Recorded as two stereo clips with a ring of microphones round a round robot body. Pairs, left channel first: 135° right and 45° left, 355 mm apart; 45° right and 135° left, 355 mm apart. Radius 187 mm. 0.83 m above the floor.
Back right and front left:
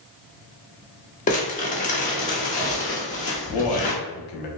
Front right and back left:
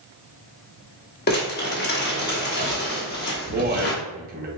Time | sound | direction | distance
1.3 | crumpling | 85° right | 1.1 m
3.5 | a man speaking | 160° right | 1.0 m